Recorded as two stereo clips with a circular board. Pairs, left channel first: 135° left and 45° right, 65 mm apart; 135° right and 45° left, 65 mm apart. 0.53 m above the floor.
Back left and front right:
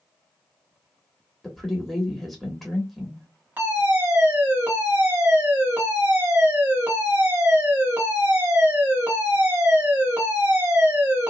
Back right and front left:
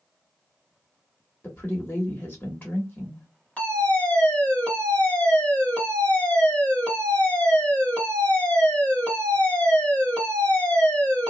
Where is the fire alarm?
80° right, 1.9 m.